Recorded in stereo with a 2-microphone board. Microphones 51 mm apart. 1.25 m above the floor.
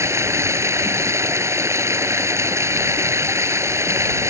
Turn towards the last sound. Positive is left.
turn(degrees=-65)  # may be behind; listen again after turning